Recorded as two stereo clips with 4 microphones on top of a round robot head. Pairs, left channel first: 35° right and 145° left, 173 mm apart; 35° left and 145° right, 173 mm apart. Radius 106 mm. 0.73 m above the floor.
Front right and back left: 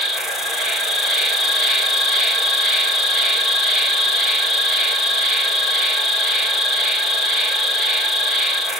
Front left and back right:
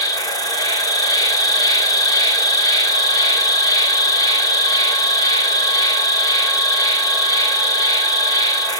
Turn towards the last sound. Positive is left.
turn(degrees=55)